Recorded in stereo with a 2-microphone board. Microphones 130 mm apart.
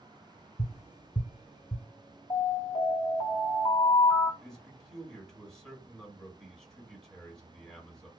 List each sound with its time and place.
0.6 s tapping: 40° left (ahead or behind), 0.6 m
2.3 s an alarm: 50° left (ahead or behind), 1.6 m
4.4 s a man speaking: 5° left (ahead or behind), 2.0 m